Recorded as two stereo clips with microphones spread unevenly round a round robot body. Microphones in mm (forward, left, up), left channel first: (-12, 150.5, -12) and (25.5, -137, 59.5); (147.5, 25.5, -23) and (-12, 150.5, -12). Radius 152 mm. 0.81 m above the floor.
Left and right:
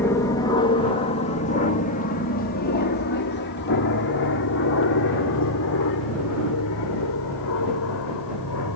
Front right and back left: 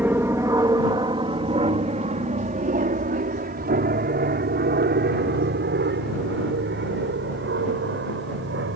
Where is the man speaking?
No man speaking in this recording.